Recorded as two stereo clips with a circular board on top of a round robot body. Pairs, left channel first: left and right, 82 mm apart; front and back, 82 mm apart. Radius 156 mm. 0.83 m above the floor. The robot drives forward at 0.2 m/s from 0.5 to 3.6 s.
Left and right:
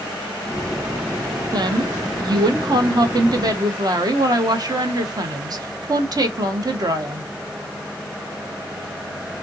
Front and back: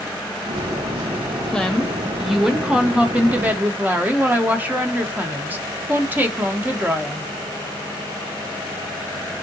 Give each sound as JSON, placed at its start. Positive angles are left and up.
{"t": 1.5, "sound": "a woman speaking", "azimuth_deg": -80, "distance_m": 0.9}